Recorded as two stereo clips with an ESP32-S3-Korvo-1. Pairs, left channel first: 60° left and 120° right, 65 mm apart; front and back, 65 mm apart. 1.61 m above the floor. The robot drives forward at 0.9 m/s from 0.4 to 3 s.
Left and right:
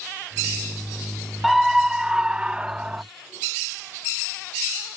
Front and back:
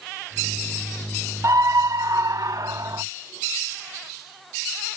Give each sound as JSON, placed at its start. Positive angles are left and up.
{"t": 1.4, "sound": "a scream", "azimuth_deg": 150}